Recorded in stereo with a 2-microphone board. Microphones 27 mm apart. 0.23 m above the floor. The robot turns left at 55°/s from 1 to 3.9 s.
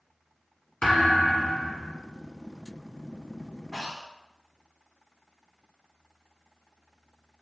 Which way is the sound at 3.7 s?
Centre (ahead or behind).